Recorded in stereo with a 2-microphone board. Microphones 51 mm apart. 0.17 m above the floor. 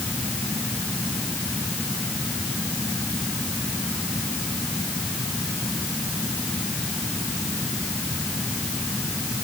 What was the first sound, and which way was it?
Only background noise.